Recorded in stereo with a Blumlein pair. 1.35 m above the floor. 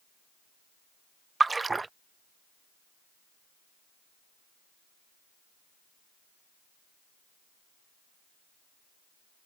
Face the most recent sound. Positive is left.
turn(degrees=-10)